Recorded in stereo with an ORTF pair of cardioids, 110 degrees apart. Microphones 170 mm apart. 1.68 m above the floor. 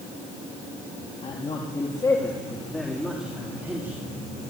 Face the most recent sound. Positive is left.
turn(degrees=-10)